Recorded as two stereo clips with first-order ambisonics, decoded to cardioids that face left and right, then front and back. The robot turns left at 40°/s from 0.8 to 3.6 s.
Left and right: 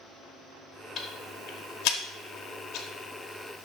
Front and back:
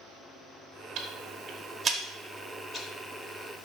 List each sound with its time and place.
1.0 s ticking: 145° left, 0.9 m; by 3.6 s 35° left, 0.9 m